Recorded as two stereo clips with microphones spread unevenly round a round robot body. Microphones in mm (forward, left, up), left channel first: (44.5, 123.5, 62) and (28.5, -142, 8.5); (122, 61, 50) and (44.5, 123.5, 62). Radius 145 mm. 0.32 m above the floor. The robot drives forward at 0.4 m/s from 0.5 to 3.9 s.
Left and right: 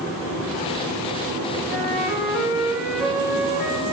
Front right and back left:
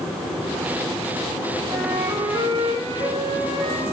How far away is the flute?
About 1.8 m.